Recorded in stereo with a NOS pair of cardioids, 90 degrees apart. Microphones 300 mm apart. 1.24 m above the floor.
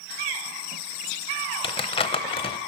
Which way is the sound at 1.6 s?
20° left.